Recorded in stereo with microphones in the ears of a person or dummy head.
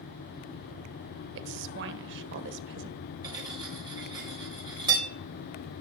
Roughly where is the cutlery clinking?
Right.